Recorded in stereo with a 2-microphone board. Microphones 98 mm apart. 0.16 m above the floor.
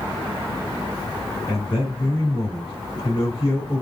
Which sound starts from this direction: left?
A man speaking, at 1.5 s.